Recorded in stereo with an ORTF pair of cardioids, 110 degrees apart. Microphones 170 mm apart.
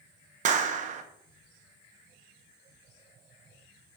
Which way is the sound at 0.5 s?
50° right.